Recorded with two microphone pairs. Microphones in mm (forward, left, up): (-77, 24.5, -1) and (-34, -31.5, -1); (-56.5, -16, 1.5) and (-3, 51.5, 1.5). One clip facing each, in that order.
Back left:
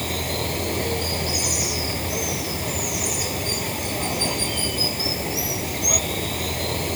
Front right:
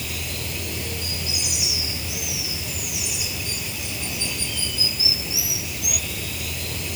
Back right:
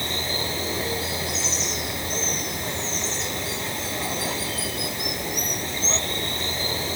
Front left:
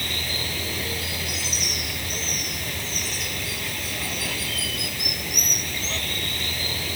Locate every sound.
0.0 s running water: 165° left